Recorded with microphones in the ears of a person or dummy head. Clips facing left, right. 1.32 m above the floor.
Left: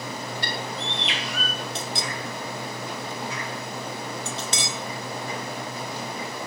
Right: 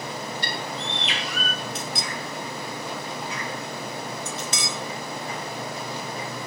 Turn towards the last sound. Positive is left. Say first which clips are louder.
# even
turn(degrees=30)  # may be behind; listen again after turning